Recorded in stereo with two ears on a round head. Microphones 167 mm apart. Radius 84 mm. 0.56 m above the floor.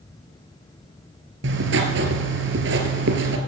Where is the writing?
65° right (ahead or behind), 2 m.